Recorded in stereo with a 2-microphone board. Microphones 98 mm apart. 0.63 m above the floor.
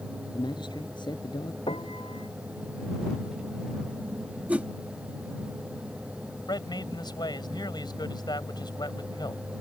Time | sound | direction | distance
0.3 | a man speaking | 50° left (ahead or behind) | ?
1.7 | a piano | 70° left (ahead or behind) | ?
4.5 | a whoosh | 15° right (ahead or behind) | ?
6.5 | a man speaking | 50° left (ahead or behind) | ?